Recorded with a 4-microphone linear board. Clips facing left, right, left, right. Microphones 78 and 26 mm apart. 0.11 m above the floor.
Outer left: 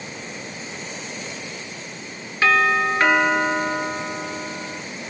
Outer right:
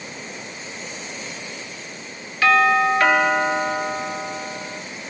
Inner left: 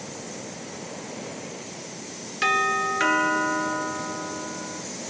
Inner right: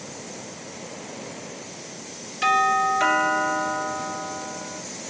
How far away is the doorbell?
About 1.7 m.